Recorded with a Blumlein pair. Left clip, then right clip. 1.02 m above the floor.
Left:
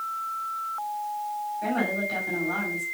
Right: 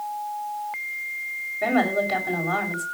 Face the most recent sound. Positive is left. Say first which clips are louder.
# right 7 dB
turn(degrees=-35)